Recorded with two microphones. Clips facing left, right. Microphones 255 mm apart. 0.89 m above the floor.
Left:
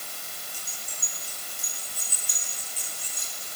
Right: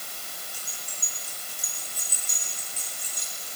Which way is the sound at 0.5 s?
60° right (ahead or behind).